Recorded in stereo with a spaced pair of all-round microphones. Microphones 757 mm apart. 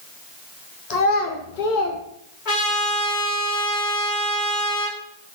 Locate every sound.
0.9 s a child speaking: 55° left (ahead or behind), 1.3 m; by 2.0 s 60° left (ahead or behind), 1.0 m
2.5 s a trumpet: 80° left, 2.5 m